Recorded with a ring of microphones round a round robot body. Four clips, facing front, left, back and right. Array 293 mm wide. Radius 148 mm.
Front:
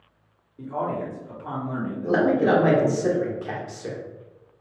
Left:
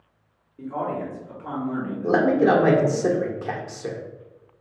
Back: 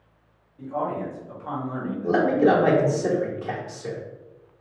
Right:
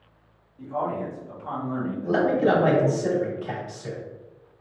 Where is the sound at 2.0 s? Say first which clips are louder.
Left 3 dB, back 1 dB; 90° left, 1.1 m.